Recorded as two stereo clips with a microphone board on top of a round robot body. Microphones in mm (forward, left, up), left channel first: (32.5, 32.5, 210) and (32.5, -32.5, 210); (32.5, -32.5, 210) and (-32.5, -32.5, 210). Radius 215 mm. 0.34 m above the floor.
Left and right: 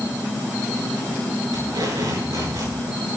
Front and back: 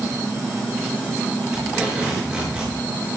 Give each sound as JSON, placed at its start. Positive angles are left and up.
{"t": 1.5, "sound": "tape being pulled", "azimuth_deg": -110, "distance_m": 7.0}